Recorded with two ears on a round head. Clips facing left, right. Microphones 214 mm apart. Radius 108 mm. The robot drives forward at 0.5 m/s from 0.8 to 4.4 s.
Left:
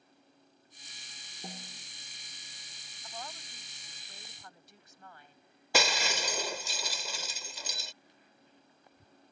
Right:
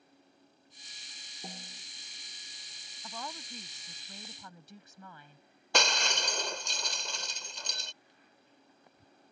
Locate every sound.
1.4 s a snare drum: centre (ahead or behind)
3.0 s a woman speaking: 65° right (ahead or behind); by 5.4 s 70° right (ahead or behind)
5.7 s breaking glass: 5° left (ahead or behind)